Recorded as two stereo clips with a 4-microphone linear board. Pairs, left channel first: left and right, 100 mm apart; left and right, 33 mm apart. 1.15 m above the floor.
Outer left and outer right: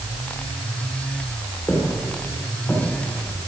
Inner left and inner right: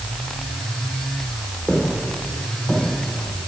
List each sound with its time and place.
1.7 s footsteps: 25° left (ahead or behind), 7 m; by 3.5 s 15° left (ahead or behind), 7 m